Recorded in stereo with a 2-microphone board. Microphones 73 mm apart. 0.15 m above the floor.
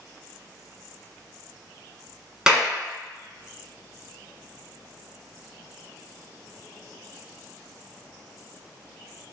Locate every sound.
2.5 s a clap: 10° right (ahead or behind), 1.0 m